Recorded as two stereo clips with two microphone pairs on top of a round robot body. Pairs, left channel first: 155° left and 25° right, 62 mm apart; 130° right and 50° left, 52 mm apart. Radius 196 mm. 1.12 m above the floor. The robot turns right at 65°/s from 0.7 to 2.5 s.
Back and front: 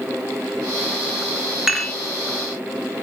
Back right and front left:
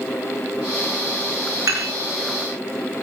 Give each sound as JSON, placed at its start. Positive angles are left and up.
{"t": 1.7, "sound": "dishes clattering", "azimuth_deg": 60, "distance_m": 1.7}